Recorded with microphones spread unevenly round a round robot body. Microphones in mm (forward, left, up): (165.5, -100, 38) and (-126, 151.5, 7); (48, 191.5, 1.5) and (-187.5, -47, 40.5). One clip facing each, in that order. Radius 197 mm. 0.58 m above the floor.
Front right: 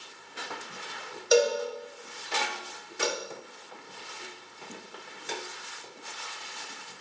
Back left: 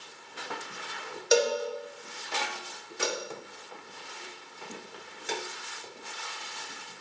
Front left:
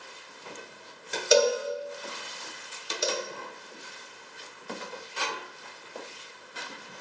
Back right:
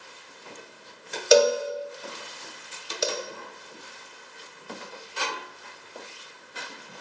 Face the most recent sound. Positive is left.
turn(degrees=-160)